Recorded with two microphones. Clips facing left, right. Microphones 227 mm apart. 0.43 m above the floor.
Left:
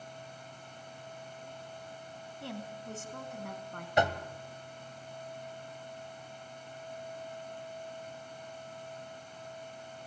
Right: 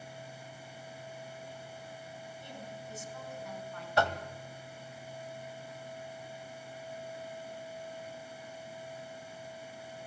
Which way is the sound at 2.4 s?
75° left (ahead or behind).